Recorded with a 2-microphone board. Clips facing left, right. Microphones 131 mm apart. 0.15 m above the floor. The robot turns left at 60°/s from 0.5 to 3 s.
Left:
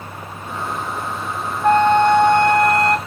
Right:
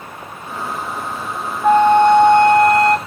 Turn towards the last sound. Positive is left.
turn(degrees=-95)